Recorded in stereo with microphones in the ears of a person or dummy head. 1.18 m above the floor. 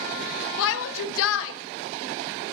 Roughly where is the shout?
Left.